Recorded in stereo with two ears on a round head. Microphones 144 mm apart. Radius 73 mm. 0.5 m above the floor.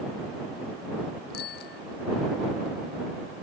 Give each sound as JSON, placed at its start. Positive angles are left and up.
{"t": 1.3, "sound": "a bicycle bell", "side_deg": 75}